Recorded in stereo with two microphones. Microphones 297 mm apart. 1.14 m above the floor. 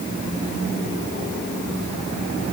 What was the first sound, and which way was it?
Only background noise.